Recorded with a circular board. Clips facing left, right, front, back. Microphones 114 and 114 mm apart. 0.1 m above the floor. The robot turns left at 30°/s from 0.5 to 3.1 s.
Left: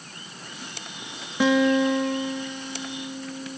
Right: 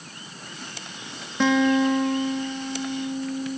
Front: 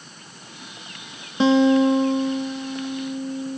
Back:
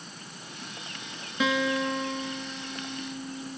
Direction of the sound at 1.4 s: 15° left.